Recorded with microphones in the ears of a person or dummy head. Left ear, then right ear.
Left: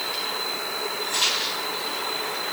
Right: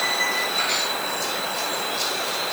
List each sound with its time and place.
Only background noise.